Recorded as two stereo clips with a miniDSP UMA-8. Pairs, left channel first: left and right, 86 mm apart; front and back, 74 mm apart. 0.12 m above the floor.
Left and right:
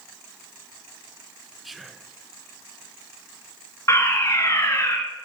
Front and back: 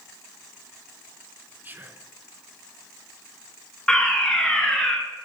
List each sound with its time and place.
1.6 s whispering: straight behind, 1.1 m
3.9 s a fire alarm: 75° left, 3 m